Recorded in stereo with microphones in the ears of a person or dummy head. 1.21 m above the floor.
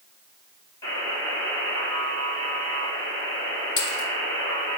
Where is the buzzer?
20° left (ahead or behind), 3.5 m.